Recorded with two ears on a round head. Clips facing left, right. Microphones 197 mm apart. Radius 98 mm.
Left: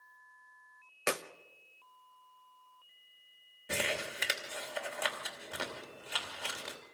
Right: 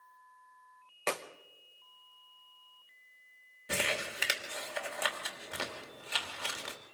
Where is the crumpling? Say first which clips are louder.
Even; 5° right (ahead or behind), 2.5 m.